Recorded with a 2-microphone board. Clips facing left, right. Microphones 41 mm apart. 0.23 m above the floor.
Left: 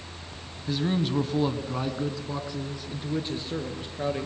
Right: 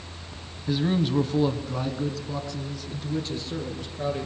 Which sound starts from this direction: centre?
A man speaking, at 0.7 s.